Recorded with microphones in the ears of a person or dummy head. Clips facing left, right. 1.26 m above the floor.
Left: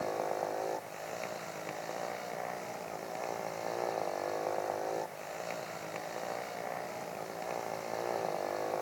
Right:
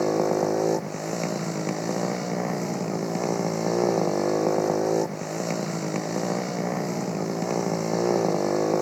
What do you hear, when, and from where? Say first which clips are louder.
0.0 s a motorcycle: right 13 dB; 65° right (ahead or behind)